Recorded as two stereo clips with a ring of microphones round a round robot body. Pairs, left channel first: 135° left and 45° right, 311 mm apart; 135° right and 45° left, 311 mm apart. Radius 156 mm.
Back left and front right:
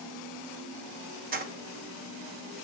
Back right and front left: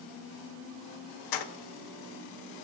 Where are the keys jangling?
110° right, 0.7 m.